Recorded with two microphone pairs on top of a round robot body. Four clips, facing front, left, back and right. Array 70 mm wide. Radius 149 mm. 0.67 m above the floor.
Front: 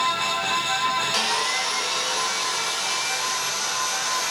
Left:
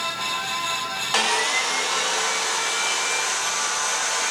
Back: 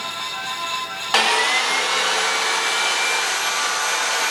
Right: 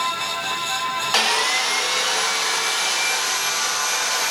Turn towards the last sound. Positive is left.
turn(degrees=-170)